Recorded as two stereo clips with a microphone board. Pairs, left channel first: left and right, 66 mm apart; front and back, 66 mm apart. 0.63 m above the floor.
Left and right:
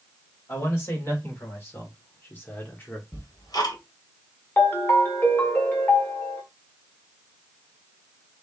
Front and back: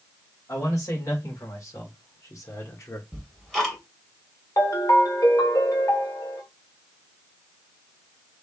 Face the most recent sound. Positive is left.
turn(degrees=30)